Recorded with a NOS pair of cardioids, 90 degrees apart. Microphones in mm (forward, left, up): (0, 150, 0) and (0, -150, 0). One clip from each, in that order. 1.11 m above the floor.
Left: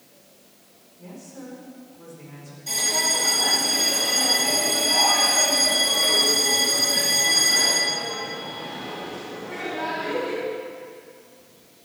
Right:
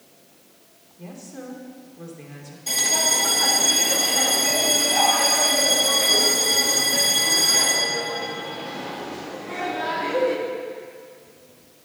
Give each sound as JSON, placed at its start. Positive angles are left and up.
{"t": 1.0, "sound": "a woman speaking", "azimuth_deg": -45, "distance_m": 2.5}
{"t": 2.7, "sound": "a bell", "azimuth_deg": -30, "distance_m": 2.0}